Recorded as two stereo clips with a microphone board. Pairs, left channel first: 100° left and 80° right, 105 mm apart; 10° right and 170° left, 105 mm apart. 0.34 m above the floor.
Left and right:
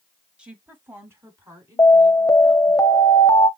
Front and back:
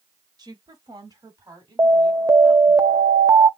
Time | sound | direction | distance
0.4 | a woman speaking | 160° right | 1.3 m
1.8 | an alarm | 130° left | 0.7 m